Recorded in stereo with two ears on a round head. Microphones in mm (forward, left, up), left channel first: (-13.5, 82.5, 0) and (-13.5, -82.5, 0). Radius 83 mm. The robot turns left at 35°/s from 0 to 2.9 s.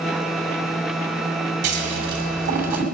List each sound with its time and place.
1.6 s scissors: 65° right (ahead or behind), 3 m; by 2.9 s 50° right (ahead or behind), 3 m